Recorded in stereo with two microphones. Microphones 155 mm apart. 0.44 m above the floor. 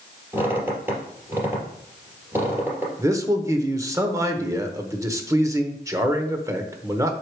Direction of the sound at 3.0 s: 20° right (ahead or behind).